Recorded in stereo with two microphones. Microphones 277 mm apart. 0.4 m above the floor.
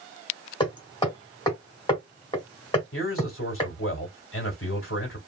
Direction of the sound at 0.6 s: 15° left (ahead or behind).